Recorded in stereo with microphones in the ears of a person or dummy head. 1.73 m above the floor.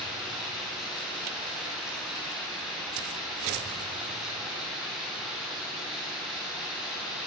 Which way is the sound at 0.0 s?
Centre (ahead or behind).